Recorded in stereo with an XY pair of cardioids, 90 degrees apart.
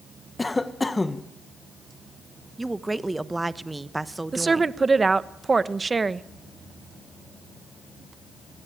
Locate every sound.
0.4 s a cough: 20° left, 1.5 m
2.6 s a woman speaking: 15° right, 1.1 m
4.3 s a woman speaking: 30° right, 1.1 m